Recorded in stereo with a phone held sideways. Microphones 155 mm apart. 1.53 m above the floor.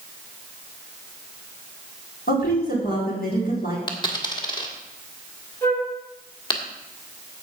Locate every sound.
2.3 s a woman speaking: 80° left, 5 m
3.9 s a dropped coin: 30° left (ahead or behind), 1.8 m
5.6 s a flute: 15° left (ahead or behind), 3.5 m